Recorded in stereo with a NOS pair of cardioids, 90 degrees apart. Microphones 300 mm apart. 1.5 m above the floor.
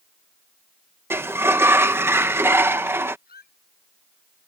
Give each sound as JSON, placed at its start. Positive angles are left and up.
{"t": 1.1, "sound": "a sliding door", "azimuth_deg": -10}
{"t": 3.3, "sound": "a squeak", "azimuth_deg": 30}